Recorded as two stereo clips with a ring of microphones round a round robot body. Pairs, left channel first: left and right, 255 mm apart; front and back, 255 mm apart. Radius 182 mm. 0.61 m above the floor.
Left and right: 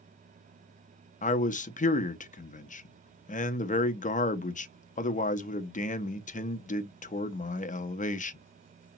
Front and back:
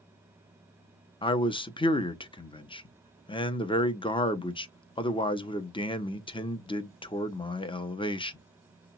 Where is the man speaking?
55° left, 0.7 m.